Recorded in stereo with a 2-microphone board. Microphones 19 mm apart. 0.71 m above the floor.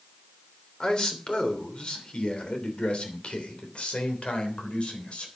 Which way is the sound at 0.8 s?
40° left (ahead or behind).